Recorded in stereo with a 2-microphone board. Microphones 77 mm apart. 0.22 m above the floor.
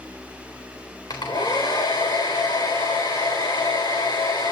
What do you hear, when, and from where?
1.1 s a hair dryer: 70° left (ahead or behind), 3.5 m